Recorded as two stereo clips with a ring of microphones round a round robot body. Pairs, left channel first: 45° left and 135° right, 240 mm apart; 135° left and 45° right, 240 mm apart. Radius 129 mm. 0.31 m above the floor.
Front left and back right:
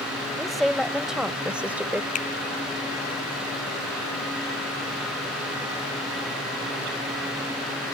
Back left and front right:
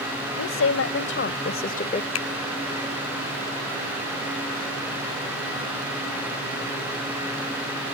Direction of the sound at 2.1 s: 105° left.